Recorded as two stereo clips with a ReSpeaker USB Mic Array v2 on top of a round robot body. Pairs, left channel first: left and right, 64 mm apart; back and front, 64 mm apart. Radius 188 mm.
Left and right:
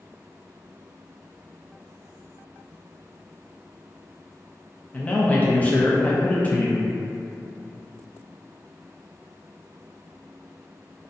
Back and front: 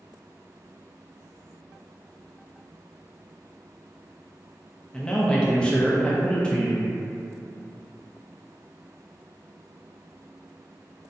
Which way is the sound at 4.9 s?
120° left.